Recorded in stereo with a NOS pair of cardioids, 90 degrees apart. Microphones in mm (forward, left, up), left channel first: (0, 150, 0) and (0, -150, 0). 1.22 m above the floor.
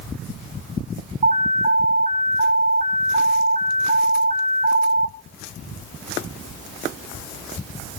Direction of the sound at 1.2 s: 25° right.